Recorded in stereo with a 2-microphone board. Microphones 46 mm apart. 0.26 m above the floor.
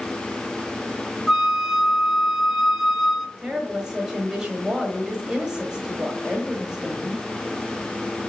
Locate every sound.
1.3 s a flute: 5° right (ahead or behind), 0.9 m
3.4 s a woman speaking: 15° right (ahead or behind), 1.2 m